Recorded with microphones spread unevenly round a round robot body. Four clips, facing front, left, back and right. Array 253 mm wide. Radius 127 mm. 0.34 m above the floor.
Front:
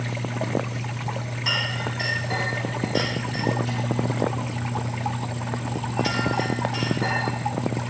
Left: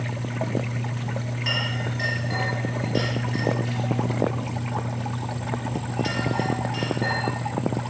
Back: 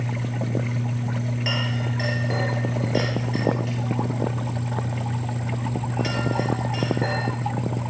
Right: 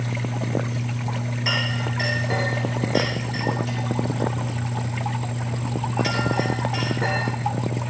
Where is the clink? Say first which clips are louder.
Right 3 dB, front 2 dB; 140° right, 5.5 m.